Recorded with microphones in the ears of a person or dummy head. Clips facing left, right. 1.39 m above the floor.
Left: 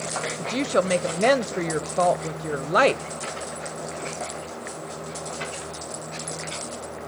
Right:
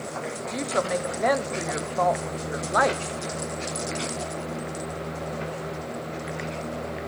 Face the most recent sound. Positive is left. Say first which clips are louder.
# left 5 dB
turn(degrees=35)  # may be behind; listen again after turning